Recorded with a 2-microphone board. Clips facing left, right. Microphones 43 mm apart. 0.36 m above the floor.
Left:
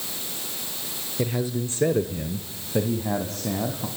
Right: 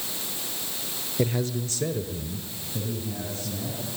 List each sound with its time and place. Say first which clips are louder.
1.2 s a man speaking: even; 5° right (ahead or behind), 1.1 m; by 3.9 s 70° left (ahead or behind), 3.5 m